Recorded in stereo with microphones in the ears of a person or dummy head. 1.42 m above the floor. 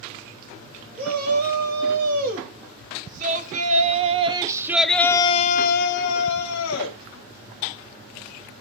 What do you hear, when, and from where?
1.0 s a shout: 50° right (ahead or behind), 3.5 m; by 7.0 s 85° left, 1.5 m